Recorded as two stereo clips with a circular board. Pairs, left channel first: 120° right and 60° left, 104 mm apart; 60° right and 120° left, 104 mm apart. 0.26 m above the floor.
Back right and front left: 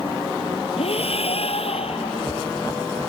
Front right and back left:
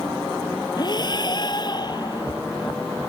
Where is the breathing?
105° right.